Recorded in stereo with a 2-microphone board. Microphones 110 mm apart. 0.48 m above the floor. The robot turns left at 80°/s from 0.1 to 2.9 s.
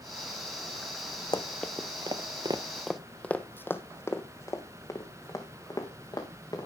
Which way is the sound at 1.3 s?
40° left (ahead or behind).